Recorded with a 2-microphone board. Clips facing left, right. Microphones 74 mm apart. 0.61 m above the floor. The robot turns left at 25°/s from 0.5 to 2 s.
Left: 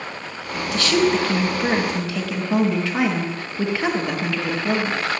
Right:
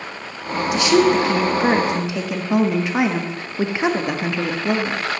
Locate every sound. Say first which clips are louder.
0.7 s a woman speaking: right 4 dB; 20° right (ahead or behind), 0.6 m